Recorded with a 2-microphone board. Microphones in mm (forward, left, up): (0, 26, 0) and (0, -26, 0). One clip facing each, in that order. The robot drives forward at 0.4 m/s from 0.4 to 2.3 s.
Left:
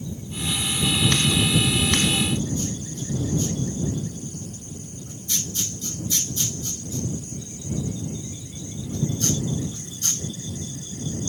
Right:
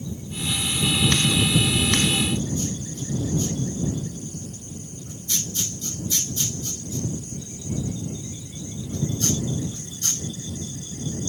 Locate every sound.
Only background noise.